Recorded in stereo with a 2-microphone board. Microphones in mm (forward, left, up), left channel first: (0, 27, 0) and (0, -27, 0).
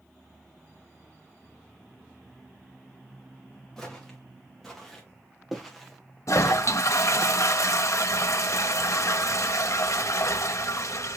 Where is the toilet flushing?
65° left (ahead or behind), 0.7 m.